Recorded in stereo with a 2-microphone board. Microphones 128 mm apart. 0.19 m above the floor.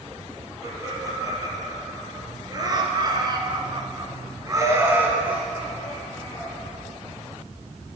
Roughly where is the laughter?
Right.